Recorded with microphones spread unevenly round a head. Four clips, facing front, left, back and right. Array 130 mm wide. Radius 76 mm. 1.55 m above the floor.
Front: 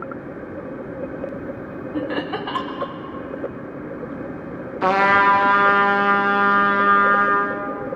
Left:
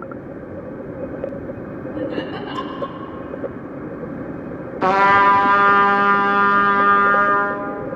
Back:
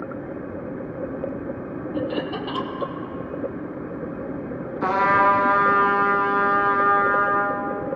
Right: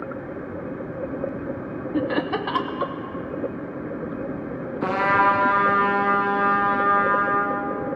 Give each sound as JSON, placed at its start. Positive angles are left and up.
{"t": 1.9, "sound": "laughter", "azimuth_deg": -55, "distance_m": 2.0}
{"t": 4.8, "sound": "a trumpet", "azimuth_deg": 35, "distance_m": 1.8}